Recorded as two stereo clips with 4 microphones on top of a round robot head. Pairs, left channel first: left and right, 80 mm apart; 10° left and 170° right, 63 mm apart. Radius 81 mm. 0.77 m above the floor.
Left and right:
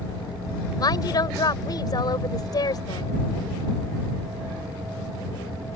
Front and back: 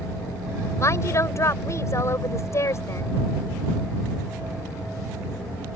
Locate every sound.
0.8 s a woman speaking: 50° left